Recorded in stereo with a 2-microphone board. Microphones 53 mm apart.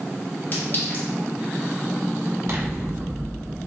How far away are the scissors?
About 1.2 m.